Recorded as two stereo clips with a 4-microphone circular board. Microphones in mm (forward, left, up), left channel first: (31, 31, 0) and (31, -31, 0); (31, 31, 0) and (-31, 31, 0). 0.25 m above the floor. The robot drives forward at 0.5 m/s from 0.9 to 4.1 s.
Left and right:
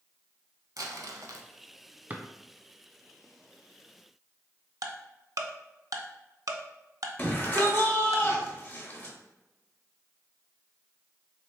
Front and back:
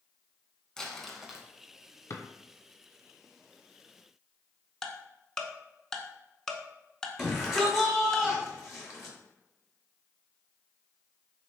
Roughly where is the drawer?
Ahead right.